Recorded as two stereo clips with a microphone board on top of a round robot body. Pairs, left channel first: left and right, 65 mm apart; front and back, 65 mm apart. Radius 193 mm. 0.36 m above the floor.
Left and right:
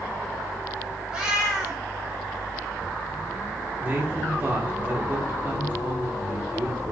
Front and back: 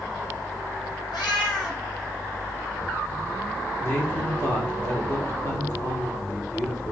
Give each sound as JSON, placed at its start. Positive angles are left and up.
{"t": 1.1, "sound": "a cat meowing", "azimuth_deg": -15, "distance_m": 1.1}
{"t": 3.8, "sound": "a man speaking", "azimuth_deg": -40, "distance_m": 1.8}